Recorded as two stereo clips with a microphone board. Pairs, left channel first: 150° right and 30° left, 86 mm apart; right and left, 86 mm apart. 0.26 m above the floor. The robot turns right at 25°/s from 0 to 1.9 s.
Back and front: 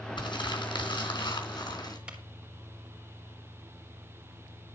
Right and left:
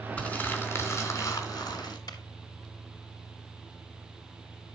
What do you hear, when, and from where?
0.2 s crumpling: 160° right, 3.5 m; by 2.0 s 120° right, 3.5 m
2.1 s a clap: 45° right, 4 m